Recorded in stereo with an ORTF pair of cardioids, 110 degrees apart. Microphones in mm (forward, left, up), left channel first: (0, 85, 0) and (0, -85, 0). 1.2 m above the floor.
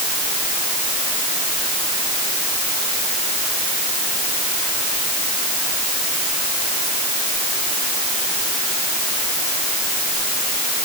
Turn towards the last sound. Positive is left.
No sound to turn to.